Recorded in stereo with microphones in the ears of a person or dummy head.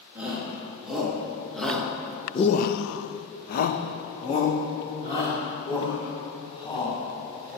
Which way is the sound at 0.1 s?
10° right (ahead or behind).